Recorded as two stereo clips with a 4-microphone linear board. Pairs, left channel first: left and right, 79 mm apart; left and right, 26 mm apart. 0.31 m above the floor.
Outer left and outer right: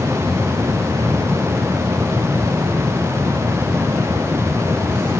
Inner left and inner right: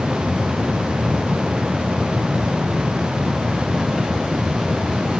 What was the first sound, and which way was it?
Only background noise.